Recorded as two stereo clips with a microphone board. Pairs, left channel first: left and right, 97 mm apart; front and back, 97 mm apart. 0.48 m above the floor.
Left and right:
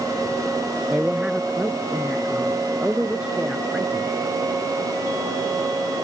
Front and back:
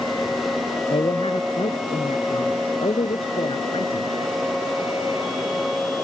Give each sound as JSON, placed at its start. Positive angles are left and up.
{"t": 0.9, "sound": "a man speaking", "azimuth_deg": -15}